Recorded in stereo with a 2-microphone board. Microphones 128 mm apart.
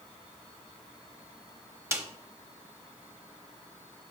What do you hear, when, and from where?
1.9 s a snare drum: 20° right (ahead or behind), 0.9 m